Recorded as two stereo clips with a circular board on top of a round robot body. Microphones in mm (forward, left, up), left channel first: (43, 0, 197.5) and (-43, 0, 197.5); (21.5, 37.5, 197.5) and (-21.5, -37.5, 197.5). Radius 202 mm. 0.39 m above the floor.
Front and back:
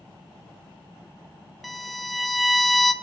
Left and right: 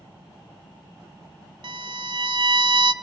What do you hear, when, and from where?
1.6 s a violin: 90° right, 0.8 m